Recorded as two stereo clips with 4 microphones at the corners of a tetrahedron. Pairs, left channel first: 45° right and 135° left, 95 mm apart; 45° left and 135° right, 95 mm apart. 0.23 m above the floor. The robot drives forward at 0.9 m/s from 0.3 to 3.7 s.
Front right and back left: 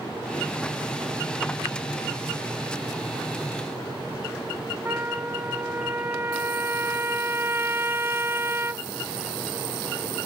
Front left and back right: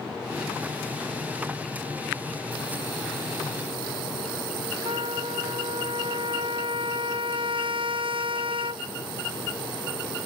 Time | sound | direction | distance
4.8 | a trumpet | 160° right | ?